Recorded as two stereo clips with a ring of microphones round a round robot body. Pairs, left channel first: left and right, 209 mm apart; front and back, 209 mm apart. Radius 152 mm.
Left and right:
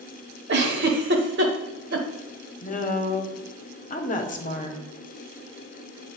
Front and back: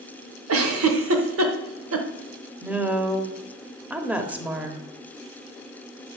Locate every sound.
0.5 s a giggle: 145° right, 0.8 m
2.6 s a woman speaking: 100° left, 1.3 m